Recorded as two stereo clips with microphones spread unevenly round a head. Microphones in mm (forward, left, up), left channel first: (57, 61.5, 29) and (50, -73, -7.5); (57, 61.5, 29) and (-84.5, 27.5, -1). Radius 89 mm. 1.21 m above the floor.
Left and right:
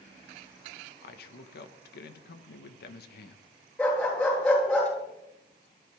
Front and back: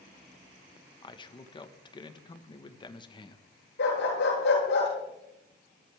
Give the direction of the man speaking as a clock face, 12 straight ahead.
9 o'clock.